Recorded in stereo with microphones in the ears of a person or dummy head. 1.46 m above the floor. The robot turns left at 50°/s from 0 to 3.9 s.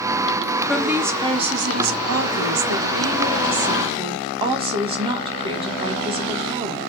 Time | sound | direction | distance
0.7 | a woman speaking | 10° left | 1.7 m